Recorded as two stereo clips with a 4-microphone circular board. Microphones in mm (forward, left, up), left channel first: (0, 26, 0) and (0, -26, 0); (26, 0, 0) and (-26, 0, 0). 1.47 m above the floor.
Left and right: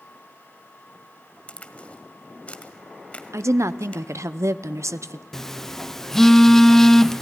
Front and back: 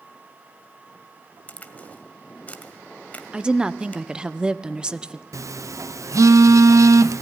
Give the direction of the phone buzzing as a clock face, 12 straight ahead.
6 o'clock.